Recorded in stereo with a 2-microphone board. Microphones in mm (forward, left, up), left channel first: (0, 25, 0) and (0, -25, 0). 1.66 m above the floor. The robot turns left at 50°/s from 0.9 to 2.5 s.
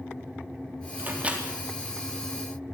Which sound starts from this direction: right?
A microwave, at 1.0 s.